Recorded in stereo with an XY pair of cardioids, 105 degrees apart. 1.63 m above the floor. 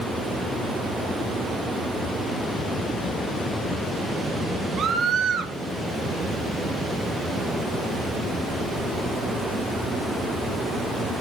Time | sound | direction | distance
4.8 | a scream | 55° right | 1.9 m